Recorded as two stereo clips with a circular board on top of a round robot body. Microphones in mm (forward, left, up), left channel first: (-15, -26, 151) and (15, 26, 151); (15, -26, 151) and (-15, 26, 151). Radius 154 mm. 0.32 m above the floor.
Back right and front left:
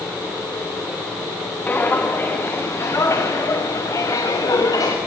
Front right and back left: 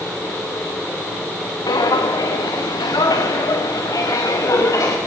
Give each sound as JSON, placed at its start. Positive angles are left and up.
{"t": 1.7, "sound": "footsteps", "azimuth_deg": -55, "distance_m": 2.5}